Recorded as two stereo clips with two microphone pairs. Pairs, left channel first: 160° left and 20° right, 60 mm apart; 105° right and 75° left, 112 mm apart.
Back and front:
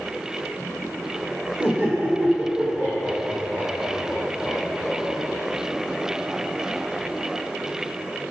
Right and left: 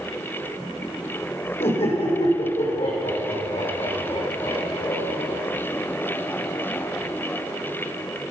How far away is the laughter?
About 5 m.